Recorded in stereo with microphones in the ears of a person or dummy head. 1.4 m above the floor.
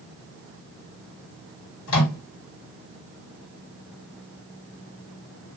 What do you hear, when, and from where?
1.9 s a microwave: 85° left, 1.6 m